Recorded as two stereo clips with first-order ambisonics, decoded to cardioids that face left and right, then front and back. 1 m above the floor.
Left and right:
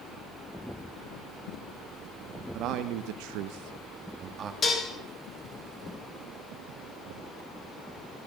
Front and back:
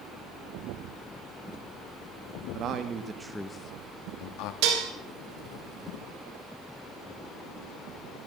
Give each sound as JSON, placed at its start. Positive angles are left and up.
{"t": 2.5, "sound": "a man speaking", "azimuth_deg": -135, "distance_m": 1.6}
{"t": 4.6, "sound": "dishes clattering", "azimuth_deg": 160, "distance_m": 2.5}